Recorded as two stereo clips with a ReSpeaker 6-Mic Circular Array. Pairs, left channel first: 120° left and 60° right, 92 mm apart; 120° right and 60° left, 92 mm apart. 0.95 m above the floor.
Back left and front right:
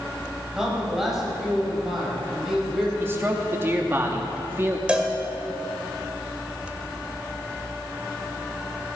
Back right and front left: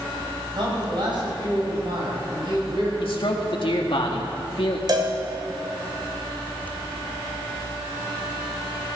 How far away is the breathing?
I don't hear breathing.